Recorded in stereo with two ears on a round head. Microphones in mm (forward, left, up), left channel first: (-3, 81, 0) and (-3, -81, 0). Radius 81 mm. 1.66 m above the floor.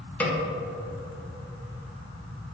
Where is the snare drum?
10° left (ahead or behind), 1.5 m.